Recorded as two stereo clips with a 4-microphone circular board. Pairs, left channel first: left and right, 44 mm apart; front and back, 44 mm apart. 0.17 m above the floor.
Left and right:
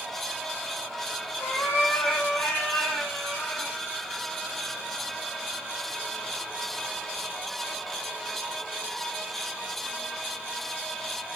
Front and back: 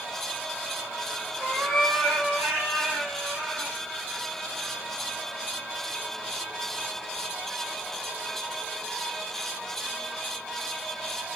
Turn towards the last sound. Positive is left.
turn(degrees=120)